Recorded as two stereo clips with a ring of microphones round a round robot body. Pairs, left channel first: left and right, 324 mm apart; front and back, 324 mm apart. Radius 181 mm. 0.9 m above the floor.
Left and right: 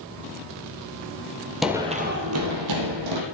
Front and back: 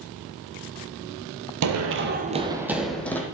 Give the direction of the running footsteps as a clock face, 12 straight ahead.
6 o'clock.